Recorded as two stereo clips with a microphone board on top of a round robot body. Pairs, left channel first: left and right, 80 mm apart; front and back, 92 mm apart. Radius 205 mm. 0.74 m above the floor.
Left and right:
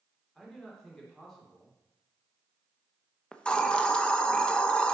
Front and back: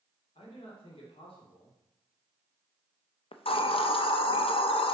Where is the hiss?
10° left, 0.8 m.